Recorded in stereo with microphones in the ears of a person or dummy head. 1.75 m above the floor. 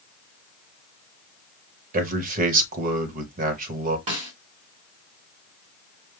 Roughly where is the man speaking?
Right.